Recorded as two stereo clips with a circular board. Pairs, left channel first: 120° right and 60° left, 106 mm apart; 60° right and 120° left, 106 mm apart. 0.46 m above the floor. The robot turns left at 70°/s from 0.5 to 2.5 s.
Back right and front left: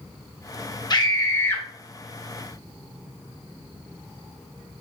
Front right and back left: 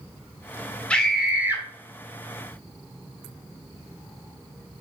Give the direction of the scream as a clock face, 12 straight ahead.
4 o'clock.